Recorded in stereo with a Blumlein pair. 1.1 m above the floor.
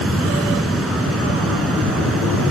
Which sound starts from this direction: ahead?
A fan, at 0.0 s.